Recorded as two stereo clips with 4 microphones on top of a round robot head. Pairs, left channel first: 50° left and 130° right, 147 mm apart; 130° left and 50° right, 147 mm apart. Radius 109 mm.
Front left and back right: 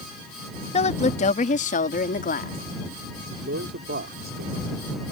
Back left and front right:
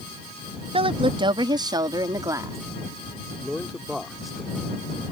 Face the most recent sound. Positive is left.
turn(degrees=-140)